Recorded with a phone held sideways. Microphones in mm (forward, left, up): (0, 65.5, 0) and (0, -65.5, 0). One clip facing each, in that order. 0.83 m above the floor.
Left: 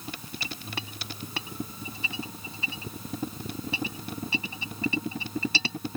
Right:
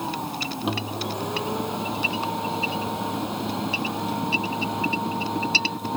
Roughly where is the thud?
No thud in this recording.